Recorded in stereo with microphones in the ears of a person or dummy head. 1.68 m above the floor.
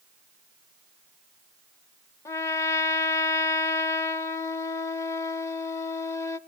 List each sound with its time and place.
2.2 s a trumpet: 20° left (ahead or behind), 0.6 m